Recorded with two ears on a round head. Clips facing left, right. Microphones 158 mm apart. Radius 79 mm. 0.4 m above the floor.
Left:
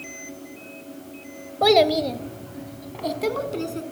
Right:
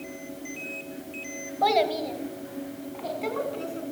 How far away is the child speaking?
About 1.7 m.